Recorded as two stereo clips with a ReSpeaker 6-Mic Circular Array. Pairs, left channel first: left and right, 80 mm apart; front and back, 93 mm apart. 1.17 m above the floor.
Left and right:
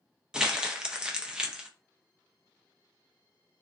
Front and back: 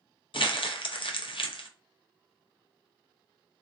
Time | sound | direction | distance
0.3 | crumpling | 10° right | 0.5 m